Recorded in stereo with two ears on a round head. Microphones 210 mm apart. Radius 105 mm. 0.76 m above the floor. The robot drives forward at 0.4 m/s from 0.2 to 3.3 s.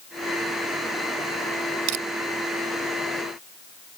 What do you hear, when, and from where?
1.9 s crushing: 75° right (ahead or behind)